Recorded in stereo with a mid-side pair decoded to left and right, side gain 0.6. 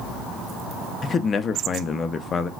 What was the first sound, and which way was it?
A man speaking, 35° left.